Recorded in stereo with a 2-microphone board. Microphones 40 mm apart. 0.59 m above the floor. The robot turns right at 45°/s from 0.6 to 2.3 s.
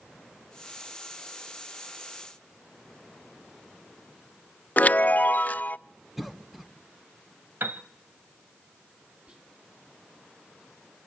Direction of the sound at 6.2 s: 5° right (ahead or behind).